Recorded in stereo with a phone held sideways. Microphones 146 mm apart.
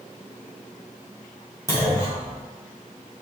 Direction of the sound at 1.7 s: 20° left (ahead or behind).